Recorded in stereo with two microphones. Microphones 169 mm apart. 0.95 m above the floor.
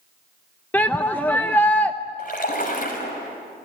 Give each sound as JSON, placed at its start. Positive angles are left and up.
{"t": 0.7, "sound": "a shout", "side_deg": 10, "distance_m": 0.7}
{"t": 2.2, "sound": "a splash", "side_deg": 50, "distance_m": 5.5}